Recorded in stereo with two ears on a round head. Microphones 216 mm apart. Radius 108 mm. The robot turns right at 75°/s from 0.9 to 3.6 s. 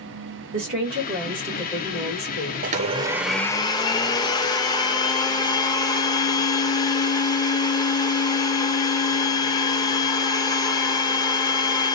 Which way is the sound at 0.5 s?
55° right.